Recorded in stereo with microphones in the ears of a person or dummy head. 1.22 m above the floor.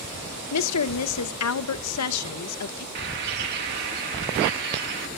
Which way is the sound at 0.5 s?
85° left.